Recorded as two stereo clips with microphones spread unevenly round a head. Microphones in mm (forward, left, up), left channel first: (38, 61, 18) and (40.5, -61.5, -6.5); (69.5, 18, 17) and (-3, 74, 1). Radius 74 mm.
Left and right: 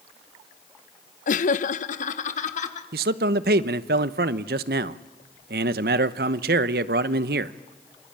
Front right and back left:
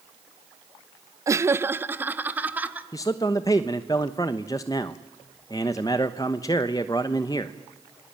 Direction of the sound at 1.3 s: 80° left.